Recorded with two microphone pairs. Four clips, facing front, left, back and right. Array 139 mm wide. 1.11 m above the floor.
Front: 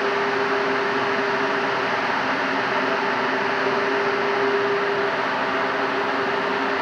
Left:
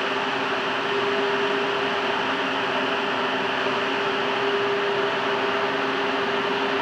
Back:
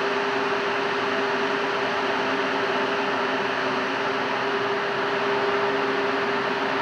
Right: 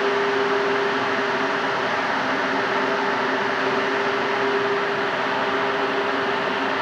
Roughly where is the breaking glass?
No breaking glass in this recording.